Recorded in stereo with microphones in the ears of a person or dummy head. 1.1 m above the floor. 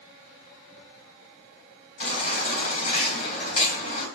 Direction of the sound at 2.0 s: 35° left (ahead or behind).